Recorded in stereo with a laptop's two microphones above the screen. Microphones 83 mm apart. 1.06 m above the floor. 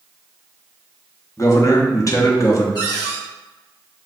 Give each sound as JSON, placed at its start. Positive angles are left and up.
{"t": 1.4, "sound": "a man speaking", "side_deg": 40, "distance_m": 0.8}
{"t": 2.8, "sound": "a cupboard door", "side_deg": 60, "distance_m": 1.4}